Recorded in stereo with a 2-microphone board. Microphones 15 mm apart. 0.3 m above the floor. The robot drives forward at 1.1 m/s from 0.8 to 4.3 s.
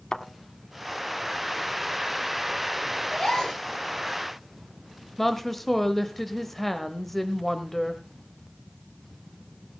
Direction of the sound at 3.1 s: 70° left (ahead or behind).